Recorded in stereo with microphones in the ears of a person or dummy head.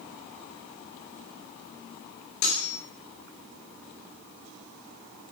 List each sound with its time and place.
2.4 s cutlery clinking: 65° left (ahead or behind), 3 m